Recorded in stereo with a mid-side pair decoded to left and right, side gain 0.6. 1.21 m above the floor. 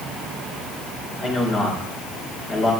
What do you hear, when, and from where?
1.2 s a man speaking: 40° left, 4 m